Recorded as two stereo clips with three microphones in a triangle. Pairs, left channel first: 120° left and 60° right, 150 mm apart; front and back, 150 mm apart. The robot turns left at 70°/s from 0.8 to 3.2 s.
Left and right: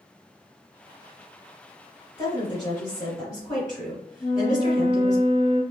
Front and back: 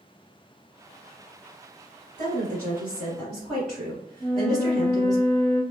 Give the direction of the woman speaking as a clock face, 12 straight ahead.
7 o'clock.